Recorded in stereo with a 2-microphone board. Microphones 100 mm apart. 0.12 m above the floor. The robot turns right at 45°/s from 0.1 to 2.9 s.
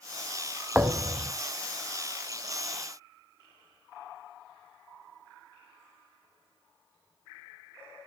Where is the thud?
15° right (ahead or behind), 0.8 m; by 1.3 s 40° right (ahead or behind), 0.8 m.